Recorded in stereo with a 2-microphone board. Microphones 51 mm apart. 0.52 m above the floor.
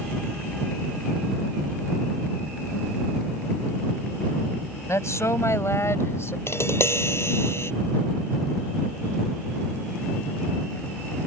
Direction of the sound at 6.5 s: 60° left (ahead or behind).